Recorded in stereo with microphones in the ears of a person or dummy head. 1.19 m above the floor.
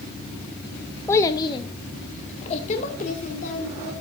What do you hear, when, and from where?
1.1 s a child speaking: 15° left (ahead or behind), 1.1 m; by 3.9 s 45° left (ahead or behind), 3.5 m